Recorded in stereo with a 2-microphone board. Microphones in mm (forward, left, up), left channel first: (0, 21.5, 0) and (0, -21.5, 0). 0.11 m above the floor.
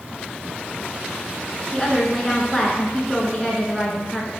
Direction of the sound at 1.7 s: Centre (ahead or behind).